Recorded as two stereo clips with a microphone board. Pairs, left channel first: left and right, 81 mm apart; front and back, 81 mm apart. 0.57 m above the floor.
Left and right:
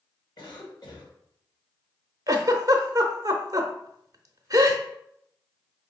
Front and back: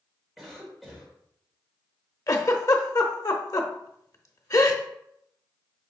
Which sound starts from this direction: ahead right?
A giggle, at 2.3 s.